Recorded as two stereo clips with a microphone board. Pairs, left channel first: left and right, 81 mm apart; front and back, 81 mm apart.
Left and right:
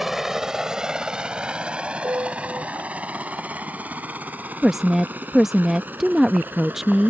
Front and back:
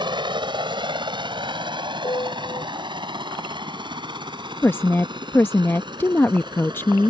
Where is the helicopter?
175° right; by 7.1 s 160° right.